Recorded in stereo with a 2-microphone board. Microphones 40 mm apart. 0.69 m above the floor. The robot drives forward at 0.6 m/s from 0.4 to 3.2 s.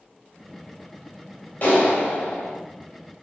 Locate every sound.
1.6 s a clap: 45° left (ahead or behind), 3 m; by 2.5 s 50° left (ahead or behind), 2.5 m